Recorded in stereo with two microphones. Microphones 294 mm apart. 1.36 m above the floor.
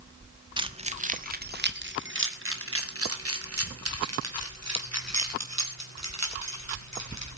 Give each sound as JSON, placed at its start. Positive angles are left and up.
{"t": 0.6, "sound": "keys jangling", "side_deg": -15, "distance_m": 1.4}